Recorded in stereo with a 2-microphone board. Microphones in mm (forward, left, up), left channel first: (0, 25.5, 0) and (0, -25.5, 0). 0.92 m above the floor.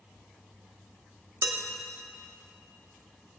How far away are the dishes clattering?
About 1.2 m.